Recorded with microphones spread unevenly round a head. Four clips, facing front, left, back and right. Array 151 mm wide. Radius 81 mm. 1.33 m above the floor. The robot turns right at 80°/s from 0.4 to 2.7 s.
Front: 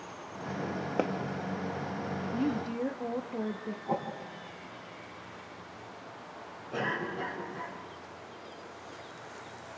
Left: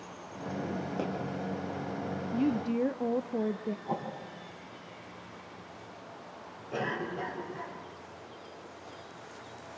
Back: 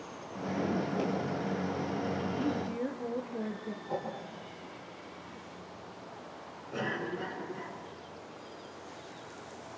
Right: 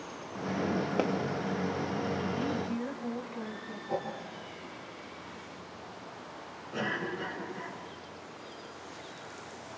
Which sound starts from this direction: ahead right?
A pop, at 1.0 s.